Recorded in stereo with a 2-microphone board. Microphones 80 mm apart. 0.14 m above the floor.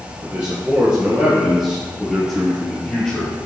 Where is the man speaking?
15° right (ahead or behind), 3.5 m; by 3.5 s 15° left (ahead or behind), 3 m.